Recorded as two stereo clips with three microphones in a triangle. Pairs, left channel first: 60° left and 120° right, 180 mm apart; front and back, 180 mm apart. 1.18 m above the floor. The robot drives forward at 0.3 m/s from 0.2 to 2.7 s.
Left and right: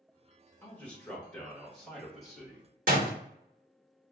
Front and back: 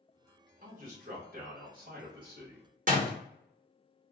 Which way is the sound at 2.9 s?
150° right.